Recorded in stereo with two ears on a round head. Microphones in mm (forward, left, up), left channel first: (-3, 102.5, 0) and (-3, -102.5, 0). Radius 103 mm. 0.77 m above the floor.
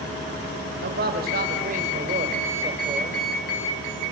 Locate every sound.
0.8 s a man speaking: 45° right (ahead or behind), 4 m; by 3.2 s 15° right (ahead or behind), 3.5 m